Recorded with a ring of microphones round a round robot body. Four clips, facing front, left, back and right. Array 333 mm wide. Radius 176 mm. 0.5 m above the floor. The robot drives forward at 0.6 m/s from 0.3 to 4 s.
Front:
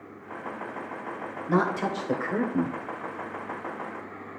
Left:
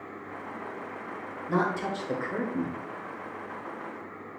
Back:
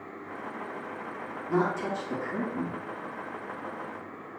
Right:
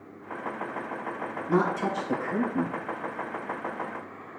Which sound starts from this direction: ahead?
A woman speaking, at 1.5 s.